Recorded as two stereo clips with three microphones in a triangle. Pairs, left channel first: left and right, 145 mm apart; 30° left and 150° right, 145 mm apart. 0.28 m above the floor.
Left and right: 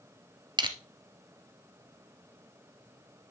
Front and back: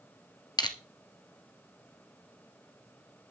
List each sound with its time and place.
0.6 s crushing: 30° right, 1.6 m